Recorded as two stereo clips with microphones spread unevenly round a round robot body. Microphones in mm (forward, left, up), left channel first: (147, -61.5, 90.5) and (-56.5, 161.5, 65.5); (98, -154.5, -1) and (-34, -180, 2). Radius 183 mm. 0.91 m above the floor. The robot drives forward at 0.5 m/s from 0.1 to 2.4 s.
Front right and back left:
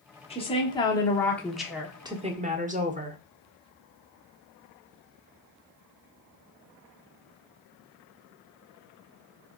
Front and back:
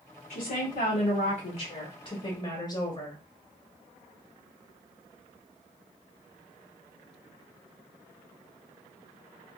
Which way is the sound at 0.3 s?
25° left.